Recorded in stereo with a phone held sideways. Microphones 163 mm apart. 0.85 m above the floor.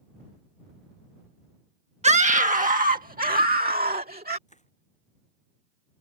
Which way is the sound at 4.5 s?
50° left (ahead or behind).